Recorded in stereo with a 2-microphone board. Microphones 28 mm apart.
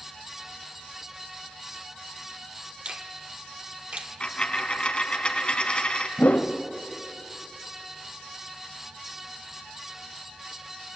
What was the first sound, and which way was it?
A finger snap, 40° right (ahead or behind).